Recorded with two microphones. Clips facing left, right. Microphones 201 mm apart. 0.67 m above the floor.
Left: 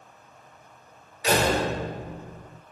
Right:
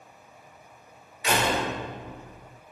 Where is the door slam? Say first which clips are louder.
Left 3 dB; 35° left (ahead or behind), 1.5 m.